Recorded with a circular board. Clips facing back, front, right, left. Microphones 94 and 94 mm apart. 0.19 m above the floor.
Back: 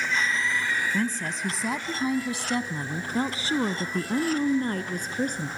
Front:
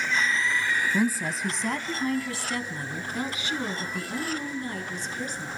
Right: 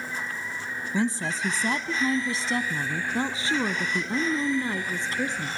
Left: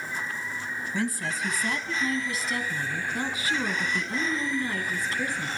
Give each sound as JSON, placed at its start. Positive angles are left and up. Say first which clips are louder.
{"t": 0.9, "sound": "a woman speaking", "louder": "front 2 dB, right 4 dB", "azimuth_deg": -65, "distance_m": 1.3}